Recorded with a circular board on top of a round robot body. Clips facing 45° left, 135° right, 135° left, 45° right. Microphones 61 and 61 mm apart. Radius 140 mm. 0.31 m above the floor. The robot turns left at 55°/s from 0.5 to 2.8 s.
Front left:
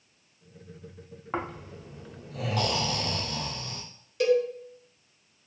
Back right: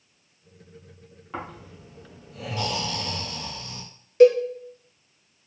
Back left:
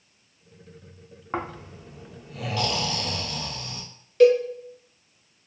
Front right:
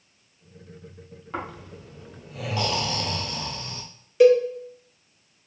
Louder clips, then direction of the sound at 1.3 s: Front left 3 dB, back left 2 dB; 90° left.